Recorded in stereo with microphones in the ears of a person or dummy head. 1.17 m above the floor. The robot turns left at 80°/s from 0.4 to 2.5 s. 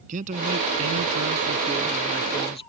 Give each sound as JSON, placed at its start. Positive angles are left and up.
{"t": 0.1, "sound": "a man speaking", "azimuth_deg": -40}